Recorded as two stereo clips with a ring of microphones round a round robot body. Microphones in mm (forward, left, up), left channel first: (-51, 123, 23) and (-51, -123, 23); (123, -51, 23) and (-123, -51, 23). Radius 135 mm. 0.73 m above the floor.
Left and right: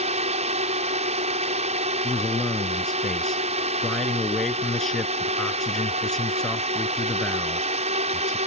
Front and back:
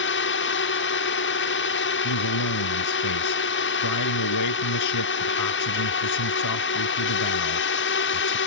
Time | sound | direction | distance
0.0 | a drone | 25° right | ?
2.0 | a man speaking | straight ahead | ?